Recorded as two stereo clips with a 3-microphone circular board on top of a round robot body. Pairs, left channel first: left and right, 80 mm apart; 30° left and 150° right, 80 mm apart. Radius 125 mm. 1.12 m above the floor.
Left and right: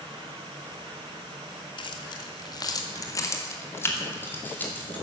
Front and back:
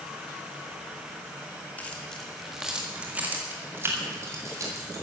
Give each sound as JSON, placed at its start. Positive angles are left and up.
{"t": 1.8, "sound": "keys jangling", "azimuth_deg": 105, "distance_m": 1.6}